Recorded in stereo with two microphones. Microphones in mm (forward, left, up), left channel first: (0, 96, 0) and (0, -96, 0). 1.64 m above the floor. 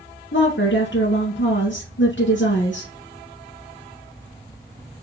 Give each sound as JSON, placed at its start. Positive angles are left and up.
{"t": 0.3, "sound": "a woman speaking", "side_deg": 75, "distance_m": 1.5}